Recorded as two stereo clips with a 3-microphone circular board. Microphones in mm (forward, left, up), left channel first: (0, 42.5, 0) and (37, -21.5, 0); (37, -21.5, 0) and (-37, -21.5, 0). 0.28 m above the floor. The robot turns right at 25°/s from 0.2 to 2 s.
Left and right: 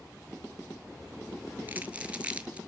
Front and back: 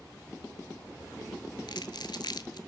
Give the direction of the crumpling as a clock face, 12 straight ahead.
12 o'clock.